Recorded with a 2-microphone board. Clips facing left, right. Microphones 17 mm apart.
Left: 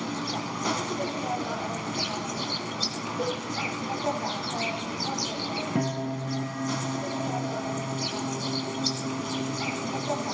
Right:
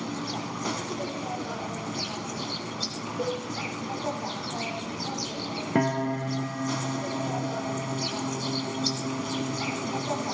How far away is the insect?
About 1.3 m.